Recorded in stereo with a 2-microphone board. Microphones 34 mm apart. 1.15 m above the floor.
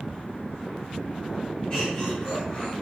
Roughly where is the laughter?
Left.